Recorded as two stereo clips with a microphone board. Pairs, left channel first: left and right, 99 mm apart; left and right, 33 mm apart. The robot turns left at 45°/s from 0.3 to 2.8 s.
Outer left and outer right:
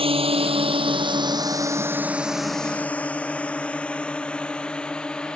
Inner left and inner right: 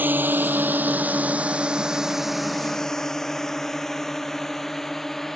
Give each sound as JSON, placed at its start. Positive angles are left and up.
{"t": 0.0, "sound": "a drone", "side_deg": -65}